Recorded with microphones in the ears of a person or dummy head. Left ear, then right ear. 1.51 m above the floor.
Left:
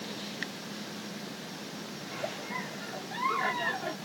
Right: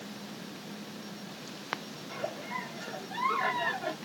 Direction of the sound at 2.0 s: 10° right (ahead or behind).